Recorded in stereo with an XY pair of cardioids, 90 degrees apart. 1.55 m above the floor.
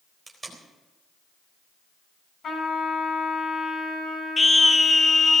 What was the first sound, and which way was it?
Tape being pulled, 25° right.